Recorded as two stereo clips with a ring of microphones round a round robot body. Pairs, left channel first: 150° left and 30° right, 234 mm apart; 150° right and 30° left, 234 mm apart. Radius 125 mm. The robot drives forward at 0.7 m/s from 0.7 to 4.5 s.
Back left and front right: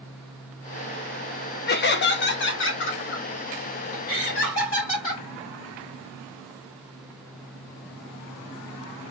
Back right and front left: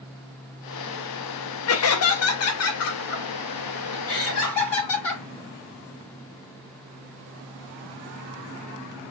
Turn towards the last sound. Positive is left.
turn(degrees=-175)